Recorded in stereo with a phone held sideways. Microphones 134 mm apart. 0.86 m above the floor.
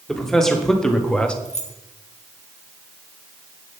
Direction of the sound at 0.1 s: 5° left (ahead or behind).